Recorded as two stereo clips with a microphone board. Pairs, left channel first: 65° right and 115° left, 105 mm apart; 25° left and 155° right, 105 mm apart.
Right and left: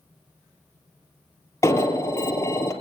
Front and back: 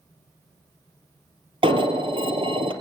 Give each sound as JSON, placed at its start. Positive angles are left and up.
{"t": 1.6, "sound": "an alarm", "azimuth_deg": -130, "distance_m": 2.5}